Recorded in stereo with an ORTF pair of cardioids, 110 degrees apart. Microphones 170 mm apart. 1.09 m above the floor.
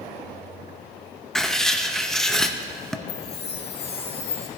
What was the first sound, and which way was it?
Writing, straight ahead.